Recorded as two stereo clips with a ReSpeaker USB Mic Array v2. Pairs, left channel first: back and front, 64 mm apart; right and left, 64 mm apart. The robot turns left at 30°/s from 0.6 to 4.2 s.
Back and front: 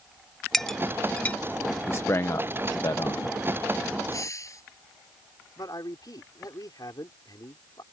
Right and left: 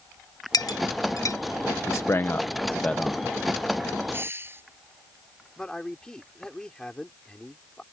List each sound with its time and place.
0.5 s a clink: 95° right; by 1.4 s 120° right
1.9 s a man speaking: 130° right; by 3.4 s 175° right
4.1 s a hiss: 145° left; by 4.6 s 140° left
5.6 s a man speaking: 170° right